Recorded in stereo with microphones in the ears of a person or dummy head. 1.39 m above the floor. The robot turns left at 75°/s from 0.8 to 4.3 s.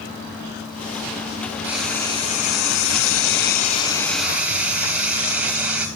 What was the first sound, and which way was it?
Frying, 170° right.